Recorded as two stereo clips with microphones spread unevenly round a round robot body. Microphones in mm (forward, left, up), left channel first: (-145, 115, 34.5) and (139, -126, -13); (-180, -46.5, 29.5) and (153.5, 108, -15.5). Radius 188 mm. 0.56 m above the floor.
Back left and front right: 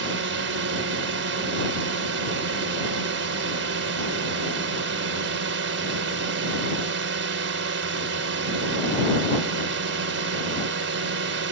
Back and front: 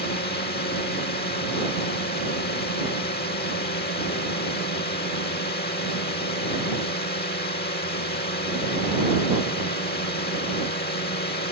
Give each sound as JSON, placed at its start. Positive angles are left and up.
{"t": 0.0, "sound": "a drone", "azimuth_deg": -90}